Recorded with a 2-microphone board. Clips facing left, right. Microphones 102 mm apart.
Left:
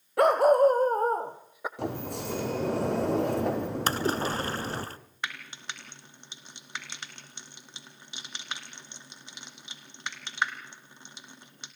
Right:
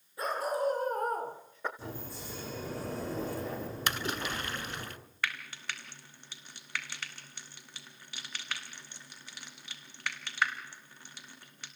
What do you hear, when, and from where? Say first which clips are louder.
0.2 s a dog barking: left 13 dB; 75° left (ahead or behind), 1.7 m; by 1.7 s 10° left (ahead or behind), 2 m
1.8 s a sliding door: left 10 dB; 70° left (ahead or behind), 3 m
3.9 s a splash: left 6 dB; 35° left (ahead or behind), 0.8 m
5.2 s frying: even; 20° left (ahead or behind), 1.7 m